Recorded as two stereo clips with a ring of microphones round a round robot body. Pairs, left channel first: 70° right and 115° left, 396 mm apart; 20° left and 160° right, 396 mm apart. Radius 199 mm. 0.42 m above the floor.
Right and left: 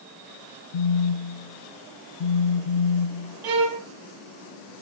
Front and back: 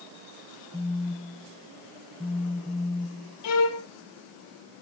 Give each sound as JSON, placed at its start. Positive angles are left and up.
{"t": 0.7, "sound": "a phone buzzing", "azimuth_deg": -65, "distance_m": 0.6}
{"t": 3.4, "sound": "a violin", "azimuth_deg": 75, "distance_m": 2.5}